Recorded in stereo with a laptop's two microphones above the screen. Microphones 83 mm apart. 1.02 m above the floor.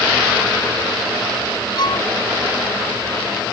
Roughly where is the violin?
Left.